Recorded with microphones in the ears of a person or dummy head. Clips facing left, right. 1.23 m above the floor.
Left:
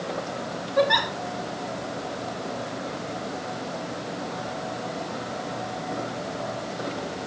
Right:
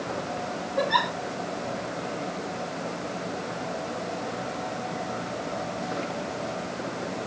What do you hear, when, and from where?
0.8 s a giggle: 80° left, 2.5 m